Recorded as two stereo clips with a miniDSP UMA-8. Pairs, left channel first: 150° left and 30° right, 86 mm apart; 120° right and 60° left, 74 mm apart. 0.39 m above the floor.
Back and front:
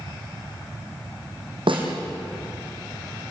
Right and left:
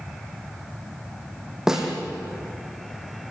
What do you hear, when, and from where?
1.7 s a snare drum: 25° right, 4.5 m